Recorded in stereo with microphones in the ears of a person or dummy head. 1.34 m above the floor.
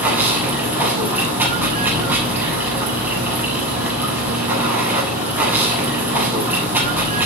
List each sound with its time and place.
0.0 s running water: 10° right (ahead or behind), 7.5 m